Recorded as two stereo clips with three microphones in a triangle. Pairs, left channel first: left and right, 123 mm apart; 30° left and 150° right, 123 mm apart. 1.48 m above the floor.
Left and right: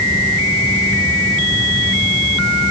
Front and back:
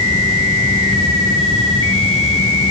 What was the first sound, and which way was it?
Only background noise.